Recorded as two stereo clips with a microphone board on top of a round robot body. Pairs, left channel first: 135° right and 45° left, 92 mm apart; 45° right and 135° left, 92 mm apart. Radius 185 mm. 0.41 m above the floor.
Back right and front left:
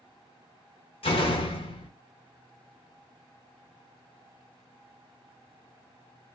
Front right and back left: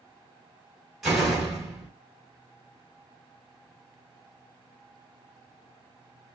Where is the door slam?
140° right, 2.5 m.